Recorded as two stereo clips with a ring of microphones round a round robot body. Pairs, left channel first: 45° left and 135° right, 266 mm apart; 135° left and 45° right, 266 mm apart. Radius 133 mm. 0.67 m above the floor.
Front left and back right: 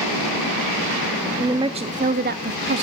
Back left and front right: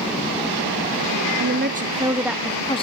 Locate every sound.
1.4 s a woman speaking: 60° right, 0.7 m; by 2.8 s 160° right, 0.7 m